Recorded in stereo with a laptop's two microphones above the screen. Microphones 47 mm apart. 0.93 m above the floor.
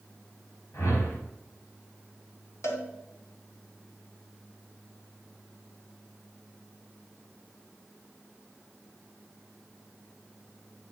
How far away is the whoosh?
About 2.5 m.